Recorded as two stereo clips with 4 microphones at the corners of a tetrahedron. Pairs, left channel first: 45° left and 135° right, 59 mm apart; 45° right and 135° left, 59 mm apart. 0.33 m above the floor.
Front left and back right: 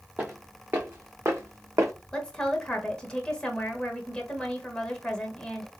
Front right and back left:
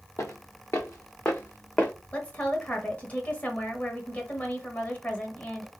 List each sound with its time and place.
0.2 s footsteps: 75° right, 1.5 m; by 1.9 s 115° right, 1.0 m
2.1 s a woman speaking: 20° right, 1.1 m